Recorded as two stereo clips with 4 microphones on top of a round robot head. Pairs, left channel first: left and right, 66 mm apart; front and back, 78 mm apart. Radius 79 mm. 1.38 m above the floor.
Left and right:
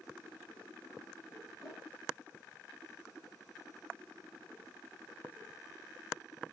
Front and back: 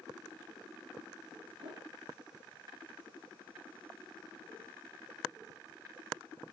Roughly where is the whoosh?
Behind.